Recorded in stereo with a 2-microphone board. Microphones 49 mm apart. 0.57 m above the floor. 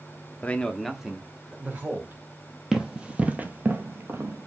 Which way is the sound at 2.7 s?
10° right (ahead or behind).